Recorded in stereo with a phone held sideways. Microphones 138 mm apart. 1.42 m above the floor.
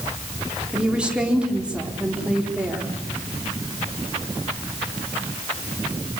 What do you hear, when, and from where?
0.7 s a woman speaking: 10° right (ahead or behind), 4 m